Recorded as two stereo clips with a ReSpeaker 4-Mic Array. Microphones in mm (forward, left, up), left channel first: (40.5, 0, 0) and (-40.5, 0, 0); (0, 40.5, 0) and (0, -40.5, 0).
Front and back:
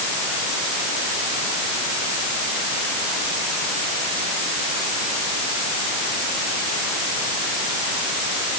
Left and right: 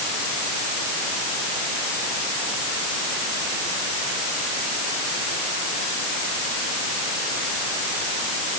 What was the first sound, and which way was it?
Only background noise.